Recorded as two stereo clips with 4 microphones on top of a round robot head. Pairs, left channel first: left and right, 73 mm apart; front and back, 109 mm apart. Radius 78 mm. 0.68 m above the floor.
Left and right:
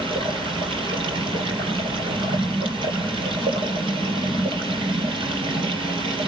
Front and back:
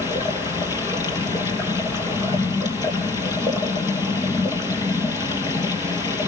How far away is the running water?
About 3.5 m.